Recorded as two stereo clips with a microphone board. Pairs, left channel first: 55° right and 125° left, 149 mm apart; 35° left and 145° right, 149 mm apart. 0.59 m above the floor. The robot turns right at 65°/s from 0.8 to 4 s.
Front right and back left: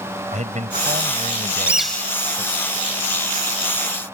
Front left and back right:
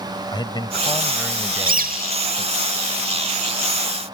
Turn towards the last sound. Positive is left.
turn(degrees=-5)